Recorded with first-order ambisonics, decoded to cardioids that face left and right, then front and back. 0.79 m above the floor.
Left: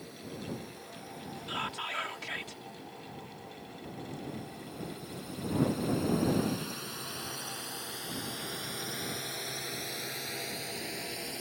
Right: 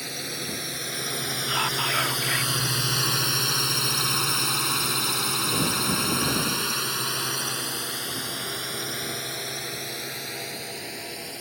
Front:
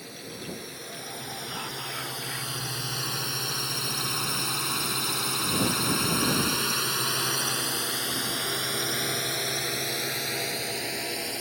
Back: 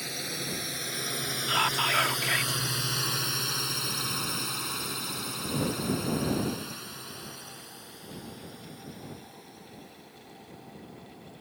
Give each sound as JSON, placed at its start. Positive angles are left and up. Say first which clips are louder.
{"t": 0.0, "sound": "a drone", "louder": "right 13 dB, back 5 dB", "azimuth_deg": -120}
{"t": 1.5, "sound": "whispering", "louder": "right 10 dB, back 12 dB", "azimuth_deg": -140}